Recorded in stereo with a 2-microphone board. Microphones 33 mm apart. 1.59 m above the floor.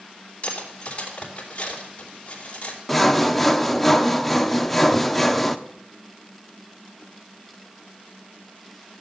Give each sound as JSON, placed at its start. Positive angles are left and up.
{"t": 0.4, "sound": "cutlery clinking", "side_deg": 35, "distance_m": 3.0}
{"t": 2.9, "sound": "sawing", "side_deg": 5, "distance_m": 0.8}